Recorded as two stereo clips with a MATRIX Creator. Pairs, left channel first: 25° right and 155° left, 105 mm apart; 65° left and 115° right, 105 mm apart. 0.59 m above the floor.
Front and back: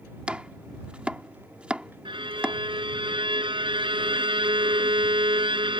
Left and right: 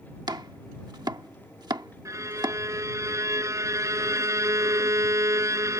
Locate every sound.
0.3 s chopping: 130° right
2.0 s a violin: 170° right